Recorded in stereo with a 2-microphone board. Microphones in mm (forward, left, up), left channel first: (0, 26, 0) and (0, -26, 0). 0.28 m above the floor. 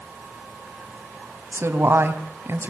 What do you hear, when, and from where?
1.5 s a woman speaking: 50° right (ahead or behind), 2.5 m